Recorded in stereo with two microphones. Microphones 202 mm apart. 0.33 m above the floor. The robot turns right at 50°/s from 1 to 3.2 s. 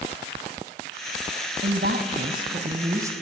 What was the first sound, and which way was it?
A woman speaking, 90° right.